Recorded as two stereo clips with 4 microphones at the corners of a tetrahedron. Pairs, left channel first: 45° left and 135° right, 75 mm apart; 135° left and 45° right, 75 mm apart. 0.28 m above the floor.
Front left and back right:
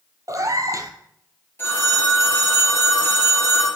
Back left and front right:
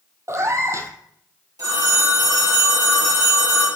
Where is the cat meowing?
90° right, 0.9 m.